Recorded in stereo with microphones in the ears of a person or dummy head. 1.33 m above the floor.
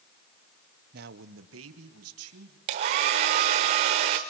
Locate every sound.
0.9 s a man speaking: 50° right (ahead or behind), 0.9 m; by 2.6 s 80° right, 3 m
2.7 s a hair dryer: 20° right (ahead or behind), 1.1 m